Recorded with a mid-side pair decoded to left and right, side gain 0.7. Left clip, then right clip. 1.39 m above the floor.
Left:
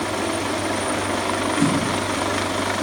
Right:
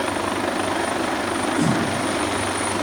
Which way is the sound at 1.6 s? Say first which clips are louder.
Left 2 dB; 5° right.